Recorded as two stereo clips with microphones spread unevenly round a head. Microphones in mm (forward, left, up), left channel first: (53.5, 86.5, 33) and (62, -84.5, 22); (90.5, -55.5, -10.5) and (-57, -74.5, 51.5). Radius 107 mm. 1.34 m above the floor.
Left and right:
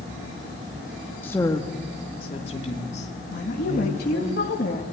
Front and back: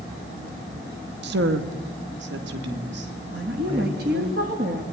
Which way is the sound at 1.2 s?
175° left.